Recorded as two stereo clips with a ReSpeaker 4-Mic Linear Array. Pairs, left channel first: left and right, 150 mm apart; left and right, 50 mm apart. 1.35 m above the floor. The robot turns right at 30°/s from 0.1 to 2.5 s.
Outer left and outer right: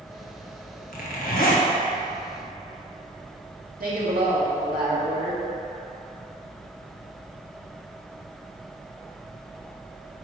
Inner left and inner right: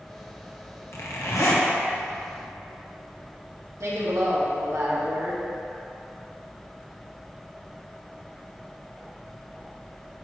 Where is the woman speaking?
85° right, 2 m.